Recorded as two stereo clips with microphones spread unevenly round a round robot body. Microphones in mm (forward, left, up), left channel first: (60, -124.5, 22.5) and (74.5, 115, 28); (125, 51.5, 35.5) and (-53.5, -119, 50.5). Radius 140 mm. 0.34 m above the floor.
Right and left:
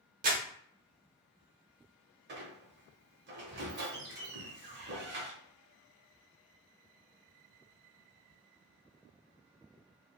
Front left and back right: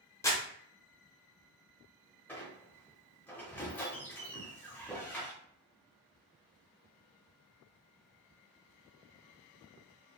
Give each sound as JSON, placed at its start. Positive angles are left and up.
{"t": 0.2, "sound": "crumpling", "azimuth_deg": 110, "distance_m": 0.8}
{"t": 2.3, "sound": "a squeak", "azimuth_deg": 125, "distance_m": 0.7}